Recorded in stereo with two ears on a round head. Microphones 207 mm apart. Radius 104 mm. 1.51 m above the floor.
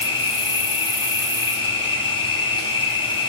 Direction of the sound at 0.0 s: 25° left (ahead or behind).